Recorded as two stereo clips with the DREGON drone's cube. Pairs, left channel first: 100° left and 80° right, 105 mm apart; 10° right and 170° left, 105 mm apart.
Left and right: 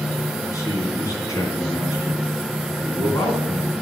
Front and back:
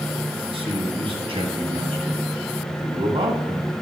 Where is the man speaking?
155° left, 2.5 m.